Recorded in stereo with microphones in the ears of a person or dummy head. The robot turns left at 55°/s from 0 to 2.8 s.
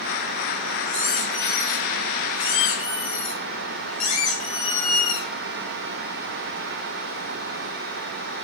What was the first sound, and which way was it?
A squeak, 125° right.